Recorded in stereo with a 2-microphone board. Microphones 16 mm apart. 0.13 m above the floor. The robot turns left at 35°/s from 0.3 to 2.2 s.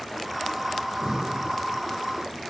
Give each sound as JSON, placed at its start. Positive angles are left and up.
{"t": 0.8, "sound": "breathing", "side_deg": -35, "distance_m": 1.4}